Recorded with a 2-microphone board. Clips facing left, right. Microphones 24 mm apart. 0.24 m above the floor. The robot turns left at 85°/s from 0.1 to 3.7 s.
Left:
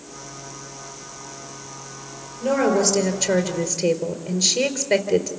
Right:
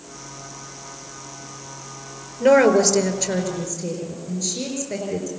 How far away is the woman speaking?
About 4.5 m.